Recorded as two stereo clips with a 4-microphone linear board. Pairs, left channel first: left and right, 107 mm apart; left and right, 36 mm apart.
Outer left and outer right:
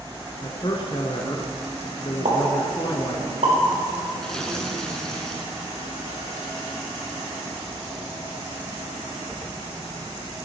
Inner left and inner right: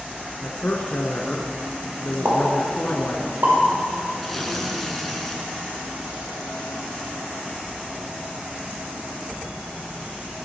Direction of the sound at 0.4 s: 45° left (ahead or behind).